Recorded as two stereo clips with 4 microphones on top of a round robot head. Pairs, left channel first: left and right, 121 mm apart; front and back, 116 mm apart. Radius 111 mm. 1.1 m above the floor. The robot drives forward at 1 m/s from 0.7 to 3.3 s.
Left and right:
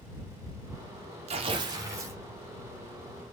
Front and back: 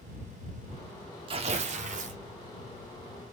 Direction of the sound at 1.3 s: 130° right.